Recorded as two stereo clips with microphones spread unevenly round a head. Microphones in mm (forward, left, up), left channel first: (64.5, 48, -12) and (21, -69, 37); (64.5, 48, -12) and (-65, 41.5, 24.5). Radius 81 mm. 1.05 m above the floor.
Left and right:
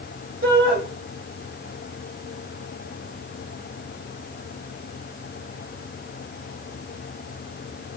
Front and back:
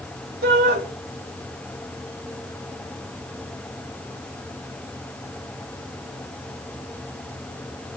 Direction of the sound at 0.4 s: 145° right.